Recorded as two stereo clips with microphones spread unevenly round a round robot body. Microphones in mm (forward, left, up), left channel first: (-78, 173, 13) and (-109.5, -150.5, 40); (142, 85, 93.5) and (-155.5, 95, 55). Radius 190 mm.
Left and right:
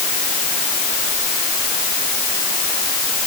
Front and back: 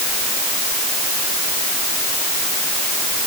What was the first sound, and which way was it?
Only background noise.